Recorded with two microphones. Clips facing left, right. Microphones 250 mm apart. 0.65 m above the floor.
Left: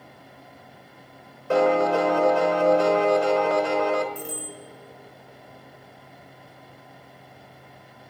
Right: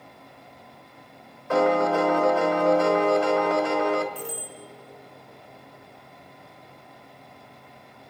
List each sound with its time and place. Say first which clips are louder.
1.5 s a piano: left 1 dB; 35° left (ahead or behind), 1.4 m
4.2 s a bicycle bell: left 1 dB; 5° right (ahead or behind), 5.5 m